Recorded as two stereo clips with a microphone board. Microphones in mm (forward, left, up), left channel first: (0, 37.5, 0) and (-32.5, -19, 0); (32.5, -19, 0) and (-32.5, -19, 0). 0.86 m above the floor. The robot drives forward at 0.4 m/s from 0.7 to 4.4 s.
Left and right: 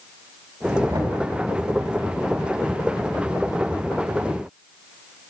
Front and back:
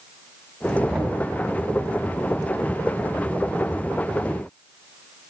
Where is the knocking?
95° right, 5 m.